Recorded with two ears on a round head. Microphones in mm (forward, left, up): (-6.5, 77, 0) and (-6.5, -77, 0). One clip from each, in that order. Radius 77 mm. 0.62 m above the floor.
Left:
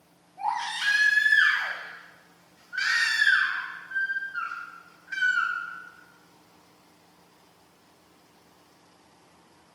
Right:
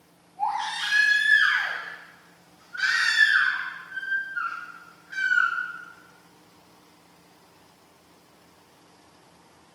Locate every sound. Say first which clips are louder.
0.4 s a baby crying: right 1 dB; 60° left (ahead or behind), 1.8 m